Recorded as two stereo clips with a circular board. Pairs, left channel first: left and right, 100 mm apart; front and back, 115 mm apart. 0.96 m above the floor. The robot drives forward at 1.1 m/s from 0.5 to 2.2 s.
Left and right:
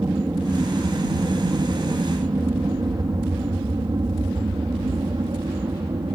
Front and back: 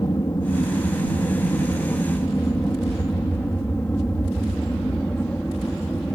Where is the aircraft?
45° right; by 6.2 s 75° right.